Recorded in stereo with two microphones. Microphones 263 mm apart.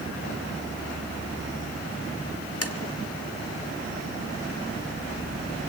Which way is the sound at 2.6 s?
60° left (ahead or behind).